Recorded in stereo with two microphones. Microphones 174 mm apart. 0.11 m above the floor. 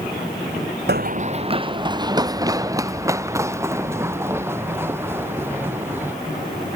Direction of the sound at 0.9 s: 75° right (ahead or behind).